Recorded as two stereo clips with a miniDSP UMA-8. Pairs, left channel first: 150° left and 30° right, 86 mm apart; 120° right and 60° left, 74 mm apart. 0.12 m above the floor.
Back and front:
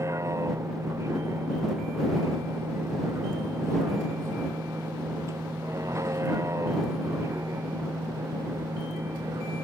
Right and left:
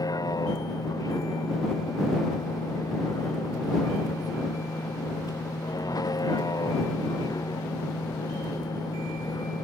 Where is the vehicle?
85° right.